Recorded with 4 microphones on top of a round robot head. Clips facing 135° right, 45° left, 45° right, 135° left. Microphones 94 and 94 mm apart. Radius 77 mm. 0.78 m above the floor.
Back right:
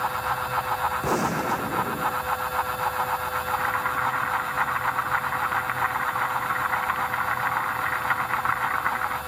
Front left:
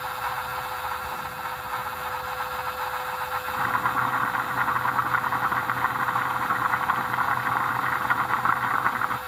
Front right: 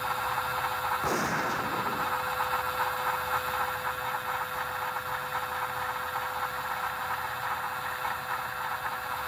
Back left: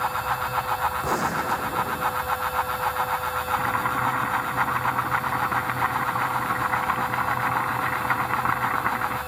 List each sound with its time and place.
1.0 s a gunshot: 145° right
3.5 s boiling: 115° left